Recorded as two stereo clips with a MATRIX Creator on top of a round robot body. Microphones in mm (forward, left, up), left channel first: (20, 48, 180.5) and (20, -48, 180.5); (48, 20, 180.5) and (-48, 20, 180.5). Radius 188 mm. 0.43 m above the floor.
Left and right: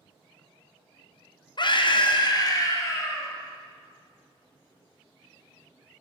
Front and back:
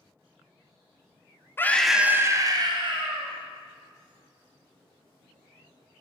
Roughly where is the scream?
Ahead left.